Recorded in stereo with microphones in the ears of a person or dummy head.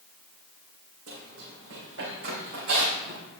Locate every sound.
1.1 s running footsteps: 65° right (ahead or behind), 3.5 m; by 3.2 s 55° right (ahead or behind), 3.5 m